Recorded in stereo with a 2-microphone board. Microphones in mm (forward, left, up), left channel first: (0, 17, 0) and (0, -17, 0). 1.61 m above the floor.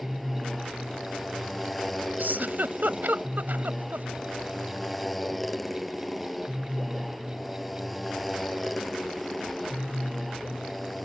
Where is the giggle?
70° right (ahead or behind).